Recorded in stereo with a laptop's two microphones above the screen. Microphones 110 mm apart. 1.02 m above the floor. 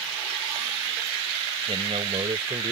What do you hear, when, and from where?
1.7 s a man speaking: 55° right (ahead or behind); by 2.7 s 65° right (ahead or behind)